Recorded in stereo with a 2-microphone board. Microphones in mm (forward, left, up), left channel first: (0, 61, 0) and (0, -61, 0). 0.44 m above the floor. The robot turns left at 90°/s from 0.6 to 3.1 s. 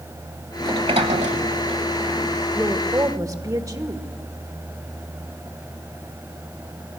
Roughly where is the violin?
No violin in this recording.